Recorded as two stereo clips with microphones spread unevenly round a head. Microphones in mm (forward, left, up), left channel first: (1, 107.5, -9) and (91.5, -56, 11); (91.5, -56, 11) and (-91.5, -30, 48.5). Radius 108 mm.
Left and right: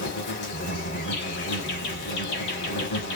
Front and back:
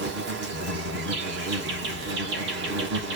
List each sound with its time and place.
0.0 s an insect: 135° left, 1.3 m